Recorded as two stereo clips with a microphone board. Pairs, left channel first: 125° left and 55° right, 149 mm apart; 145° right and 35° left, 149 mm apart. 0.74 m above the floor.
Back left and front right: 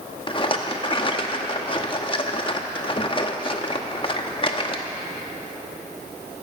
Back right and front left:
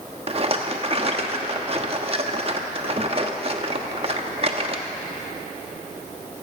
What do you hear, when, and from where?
0.3 s a rattle: 75° left, 0.9 m